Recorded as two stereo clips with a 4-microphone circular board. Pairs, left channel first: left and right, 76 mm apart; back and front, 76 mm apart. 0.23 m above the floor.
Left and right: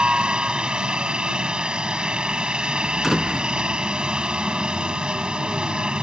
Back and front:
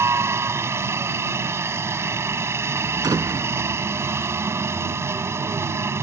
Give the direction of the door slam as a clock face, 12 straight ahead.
12 o'clock.